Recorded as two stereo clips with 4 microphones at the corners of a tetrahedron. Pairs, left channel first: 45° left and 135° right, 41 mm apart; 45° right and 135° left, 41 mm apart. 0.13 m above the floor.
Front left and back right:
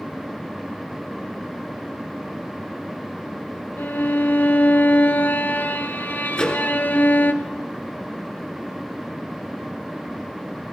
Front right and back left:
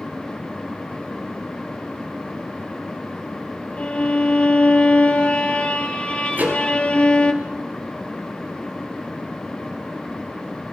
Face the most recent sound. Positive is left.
turn(degrees=105)